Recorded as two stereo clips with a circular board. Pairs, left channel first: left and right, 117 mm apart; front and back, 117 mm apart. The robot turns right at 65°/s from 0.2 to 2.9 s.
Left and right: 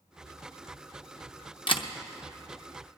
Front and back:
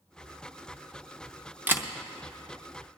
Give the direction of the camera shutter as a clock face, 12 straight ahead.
8 o'clock.